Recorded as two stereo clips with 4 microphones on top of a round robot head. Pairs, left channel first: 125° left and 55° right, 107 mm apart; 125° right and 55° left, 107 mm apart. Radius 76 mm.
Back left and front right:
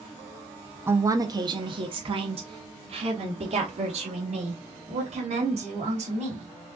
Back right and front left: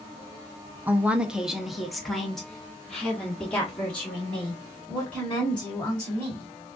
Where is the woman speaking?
5° right, 0.7 m; by 6.5 s 45° right, 3.5 m.